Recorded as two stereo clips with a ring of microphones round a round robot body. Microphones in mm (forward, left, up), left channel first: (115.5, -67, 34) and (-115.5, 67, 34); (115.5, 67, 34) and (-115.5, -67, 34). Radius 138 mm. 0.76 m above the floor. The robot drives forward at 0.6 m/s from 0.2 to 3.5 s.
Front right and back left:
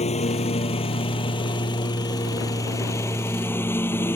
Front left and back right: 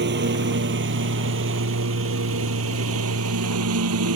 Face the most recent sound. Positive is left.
turn(degrees=-110)